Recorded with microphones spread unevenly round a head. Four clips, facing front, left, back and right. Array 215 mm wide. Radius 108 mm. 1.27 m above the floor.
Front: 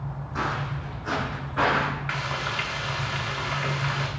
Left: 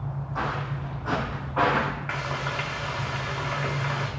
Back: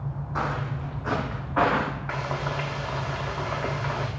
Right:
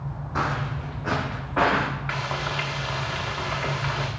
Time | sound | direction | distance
0.3 | footsteps | 95° right | 3 m
2.1 | frying | 165° right | 0.8 m